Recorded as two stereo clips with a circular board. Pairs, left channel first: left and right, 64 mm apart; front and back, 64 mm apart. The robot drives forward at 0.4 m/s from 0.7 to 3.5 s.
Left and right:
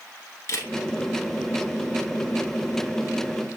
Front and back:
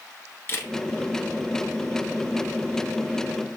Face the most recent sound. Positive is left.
turn(degrees=120)